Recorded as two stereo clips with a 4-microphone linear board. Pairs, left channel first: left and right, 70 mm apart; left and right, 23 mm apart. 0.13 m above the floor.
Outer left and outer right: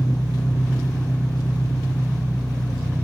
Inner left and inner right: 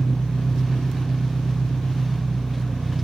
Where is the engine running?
65° left (ahead or behind), 1.3 m.